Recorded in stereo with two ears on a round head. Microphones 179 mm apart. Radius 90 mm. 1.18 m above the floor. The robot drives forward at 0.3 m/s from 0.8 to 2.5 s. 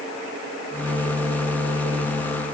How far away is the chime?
No chime in this recording.